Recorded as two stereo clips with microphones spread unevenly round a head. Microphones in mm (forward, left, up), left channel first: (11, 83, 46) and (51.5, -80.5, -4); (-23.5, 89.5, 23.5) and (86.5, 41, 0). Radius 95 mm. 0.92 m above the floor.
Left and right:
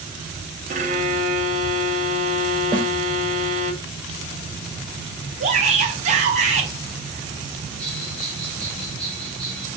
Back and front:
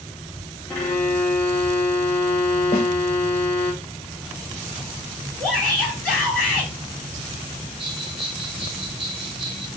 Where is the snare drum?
145° right, 1.3 m.